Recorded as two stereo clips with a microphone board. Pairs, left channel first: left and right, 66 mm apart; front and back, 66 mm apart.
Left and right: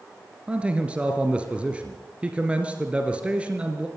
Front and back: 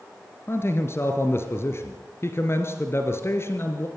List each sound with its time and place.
0.5 s a man speaking: 25° right, 2 m